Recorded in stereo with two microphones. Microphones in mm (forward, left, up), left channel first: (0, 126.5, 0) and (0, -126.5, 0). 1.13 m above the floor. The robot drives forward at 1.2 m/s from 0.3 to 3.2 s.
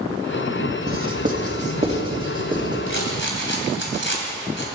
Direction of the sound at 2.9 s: 55° left (ahead or behind).